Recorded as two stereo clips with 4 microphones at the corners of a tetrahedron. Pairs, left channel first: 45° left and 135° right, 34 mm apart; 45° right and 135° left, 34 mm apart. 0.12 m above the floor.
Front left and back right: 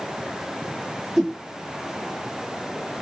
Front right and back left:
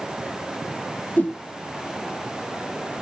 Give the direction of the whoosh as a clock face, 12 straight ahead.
1 o'clock.